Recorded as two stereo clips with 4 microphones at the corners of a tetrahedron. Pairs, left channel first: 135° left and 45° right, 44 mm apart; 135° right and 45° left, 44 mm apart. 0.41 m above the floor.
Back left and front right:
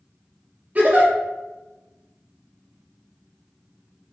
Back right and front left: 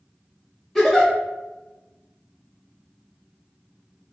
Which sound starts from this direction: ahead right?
A giggle, at 0.8 s.